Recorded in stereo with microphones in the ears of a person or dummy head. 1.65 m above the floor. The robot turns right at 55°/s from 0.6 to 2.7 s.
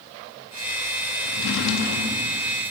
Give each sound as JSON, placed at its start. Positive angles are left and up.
{"t": 1.2, "sound": "a drawer", "azimuth_deg": 75, "distance_m": 1.8}